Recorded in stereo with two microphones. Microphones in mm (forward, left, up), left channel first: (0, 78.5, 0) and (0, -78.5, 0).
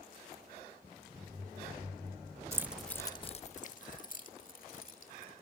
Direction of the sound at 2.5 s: 15° right (ahead or behind).